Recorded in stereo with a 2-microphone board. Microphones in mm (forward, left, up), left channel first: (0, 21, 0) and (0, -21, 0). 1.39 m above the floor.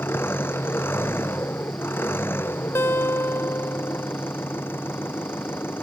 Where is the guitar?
65° left (ahead or behind).